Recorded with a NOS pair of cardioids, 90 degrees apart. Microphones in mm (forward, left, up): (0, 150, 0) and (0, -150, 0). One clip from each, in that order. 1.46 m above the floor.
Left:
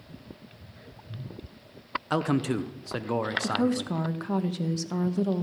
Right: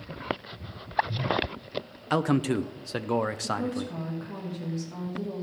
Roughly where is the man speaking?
Ahead.